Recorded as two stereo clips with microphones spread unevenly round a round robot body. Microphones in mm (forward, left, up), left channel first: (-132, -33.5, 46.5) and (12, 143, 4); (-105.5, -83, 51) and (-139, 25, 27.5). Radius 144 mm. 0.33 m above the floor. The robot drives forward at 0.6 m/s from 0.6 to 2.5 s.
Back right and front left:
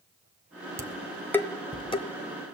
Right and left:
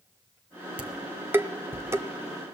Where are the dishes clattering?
80° left, 0.6 m; by 2.1 s 160° left, 1.0 m.